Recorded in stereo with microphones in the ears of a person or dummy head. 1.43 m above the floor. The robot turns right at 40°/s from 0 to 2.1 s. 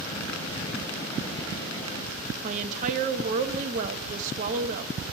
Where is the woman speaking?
40° right (ahead or behind), 0.8 m.